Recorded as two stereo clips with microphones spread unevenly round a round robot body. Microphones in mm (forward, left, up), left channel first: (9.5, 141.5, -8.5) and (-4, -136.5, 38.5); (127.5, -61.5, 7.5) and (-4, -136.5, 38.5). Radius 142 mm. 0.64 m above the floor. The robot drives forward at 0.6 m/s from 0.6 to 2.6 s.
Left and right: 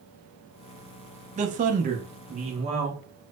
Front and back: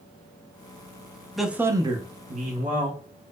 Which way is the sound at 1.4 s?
35° right.